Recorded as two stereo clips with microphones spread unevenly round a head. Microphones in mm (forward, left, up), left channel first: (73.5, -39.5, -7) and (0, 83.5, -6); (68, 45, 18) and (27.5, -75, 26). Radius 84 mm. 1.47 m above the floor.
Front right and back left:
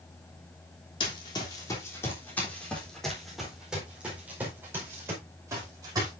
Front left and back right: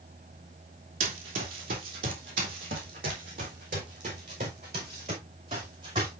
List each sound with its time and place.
1.0 s running footsteps: 120° right, 3 m; by 6.1 s 170° right, 5.5 m